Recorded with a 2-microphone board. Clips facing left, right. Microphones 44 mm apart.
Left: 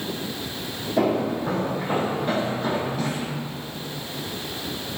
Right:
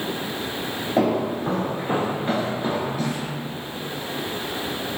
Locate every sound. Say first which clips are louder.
1.0 s footsteps: even; 40° right (ahead or behind), 1.5 m; by 3.3 s 5° left (ahead or behind), 1.3 m